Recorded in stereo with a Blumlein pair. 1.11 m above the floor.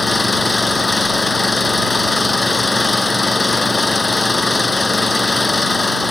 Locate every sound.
0.0 s an engine running: 10° left